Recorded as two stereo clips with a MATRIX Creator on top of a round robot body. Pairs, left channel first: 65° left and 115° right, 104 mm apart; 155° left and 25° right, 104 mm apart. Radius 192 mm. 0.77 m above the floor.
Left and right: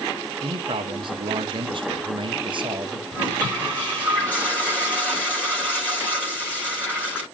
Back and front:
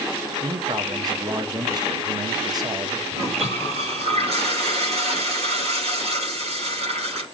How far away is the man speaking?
About 1.6 m.